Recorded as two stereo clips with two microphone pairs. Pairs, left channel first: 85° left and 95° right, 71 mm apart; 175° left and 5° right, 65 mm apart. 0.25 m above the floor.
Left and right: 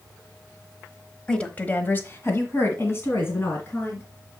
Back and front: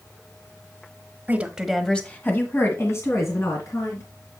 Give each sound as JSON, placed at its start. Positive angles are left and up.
{"t": 1.3, "sound": "a woman speaking", "azimuth_deg": 10, "distance_m": 1.0}